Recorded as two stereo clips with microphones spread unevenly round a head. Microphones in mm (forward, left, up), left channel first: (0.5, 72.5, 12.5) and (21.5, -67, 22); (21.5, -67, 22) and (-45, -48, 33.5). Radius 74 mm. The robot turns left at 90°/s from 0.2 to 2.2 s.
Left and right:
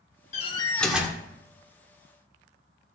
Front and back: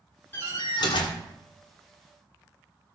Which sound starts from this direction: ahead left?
A door slam, at 0.3 s.